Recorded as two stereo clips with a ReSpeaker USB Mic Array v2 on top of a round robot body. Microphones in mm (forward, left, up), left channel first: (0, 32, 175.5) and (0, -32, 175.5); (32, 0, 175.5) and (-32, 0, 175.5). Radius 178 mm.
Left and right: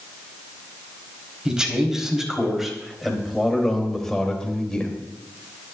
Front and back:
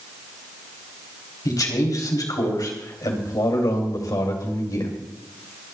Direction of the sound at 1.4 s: 15° right.